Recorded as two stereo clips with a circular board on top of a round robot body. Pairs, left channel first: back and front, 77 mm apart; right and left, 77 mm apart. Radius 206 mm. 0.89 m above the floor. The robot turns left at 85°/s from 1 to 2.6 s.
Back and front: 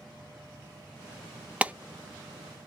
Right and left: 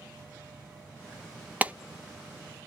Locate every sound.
1.6 s a clap: 50° left, 0.6 m; by 1.7 s 40° left, 0.6 m